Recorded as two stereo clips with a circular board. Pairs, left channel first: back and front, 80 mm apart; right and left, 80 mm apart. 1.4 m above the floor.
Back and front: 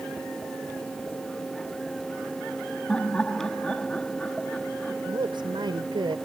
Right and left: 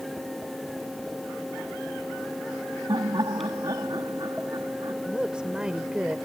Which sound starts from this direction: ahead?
A woman speaking, at 5.1 s.